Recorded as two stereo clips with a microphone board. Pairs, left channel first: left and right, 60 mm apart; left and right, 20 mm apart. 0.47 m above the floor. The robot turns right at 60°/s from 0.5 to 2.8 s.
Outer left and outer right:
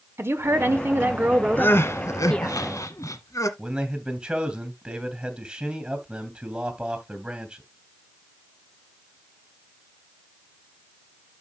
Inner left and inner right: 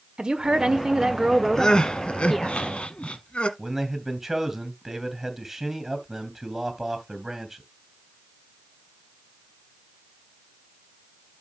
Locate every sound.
0.2 s a woman speaking: 90° right, 1.4 m; by 2.6 s 35° left, 1.4 m
1.6 s crying: 35° left, 1.2 m; by 3.5 s 110° left, 1.2 m
3.6 s a man speaking: 15° right (ahead or behind), 2.5 m